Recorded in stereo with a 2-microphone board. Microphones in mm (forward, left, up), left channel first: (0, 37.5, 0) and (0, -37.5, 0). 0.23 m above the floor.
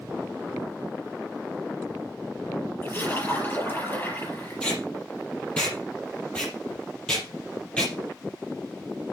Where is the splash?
25° left (ahead or behind), 6.5 m.